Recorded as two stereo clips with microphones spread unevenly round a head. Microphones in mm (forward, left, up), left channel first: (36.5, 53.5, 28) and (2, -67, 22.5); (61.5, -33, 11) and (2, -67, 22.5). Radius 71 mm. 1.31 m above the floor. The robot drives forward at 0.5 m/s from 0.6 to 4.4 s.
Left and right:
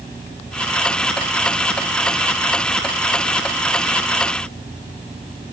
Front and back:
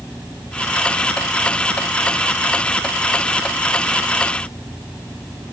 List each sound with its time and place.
Only background noise.